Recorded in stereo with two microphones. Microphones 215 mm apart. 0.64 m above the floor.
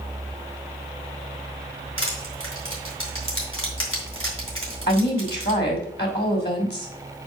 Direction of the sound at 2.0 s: 75° left (ahead or behind).